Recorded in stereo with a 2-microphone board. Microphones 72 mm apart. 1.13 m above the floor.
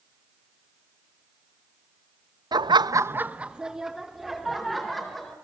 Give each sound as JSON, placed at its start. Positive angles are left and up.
{"t": 2.5, "sound": "laughter", "side_deg": -65, "distance_m": 0.6}